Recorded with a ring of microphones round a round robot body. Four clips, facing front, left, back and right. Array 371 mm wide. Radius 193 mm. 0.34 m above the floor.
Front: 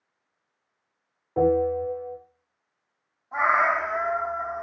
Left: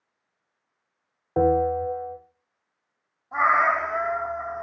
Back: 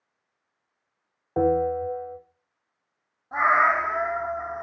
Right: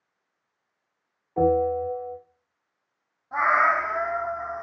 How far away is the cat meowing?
About 1.7 m.